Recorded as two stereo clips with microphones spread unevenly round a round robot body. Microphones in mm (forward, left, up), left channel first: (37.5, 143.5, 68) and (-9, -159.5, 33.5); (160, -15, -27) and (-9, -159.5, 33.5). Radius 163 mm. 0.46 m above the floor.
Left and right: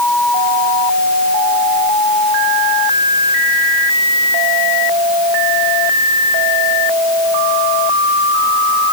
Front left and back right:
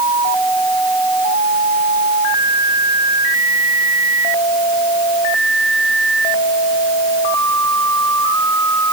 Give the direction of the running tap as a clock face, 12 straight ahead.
I don't hear a running tap.